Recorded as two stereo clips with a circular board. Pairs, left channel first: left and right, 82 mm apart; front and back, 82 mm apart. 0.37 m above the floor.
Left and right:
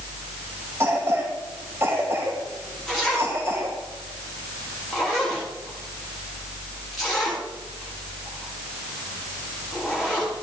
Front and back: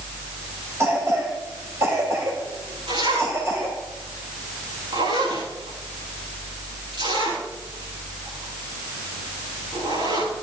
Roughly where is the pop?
No pop in this recording.